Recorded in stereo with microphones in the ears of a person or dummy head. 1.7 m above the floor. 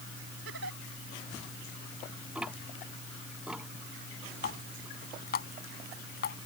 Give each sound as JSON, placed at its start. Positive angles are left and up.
{"t": 0.5, "sound": "a giggle", "side_deg": -70}
{"t": 2.4, "sound": "ticking", "side_deg": -5}
{"t": 4.4, "sound": "a running tap", "side_deg": 45}